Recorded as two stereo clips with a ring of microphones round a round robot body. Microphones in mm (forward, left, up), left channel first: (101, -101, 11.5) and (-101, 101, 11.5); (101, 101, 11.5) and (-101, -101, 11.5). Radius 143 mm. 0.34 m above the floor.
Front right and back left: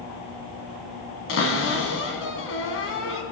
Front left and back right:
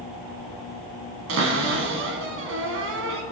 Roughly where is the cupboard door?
Right.